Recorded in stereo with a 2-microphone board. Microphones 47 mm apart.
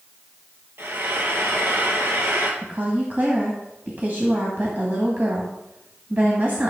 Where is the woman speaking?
40° right (ahead or behind), 2.0 m.